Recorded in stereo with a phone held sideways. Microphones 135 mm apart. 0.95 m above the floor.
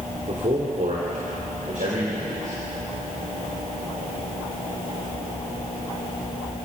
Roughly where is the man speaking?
Right.